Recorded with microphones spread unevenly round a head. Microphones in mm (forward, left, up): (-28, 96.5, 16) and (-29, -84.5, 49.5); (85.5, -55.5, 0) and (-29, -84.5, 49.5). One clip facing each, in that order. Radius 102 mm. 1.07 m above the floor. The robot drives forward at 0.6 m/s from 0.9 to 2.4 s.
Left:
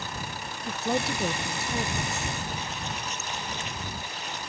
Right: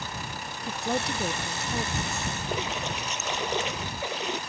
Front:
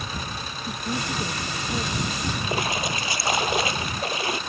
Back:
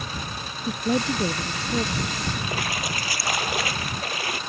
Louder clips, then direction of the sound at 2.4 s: Right 4 dB, front 3 dB; 55° right.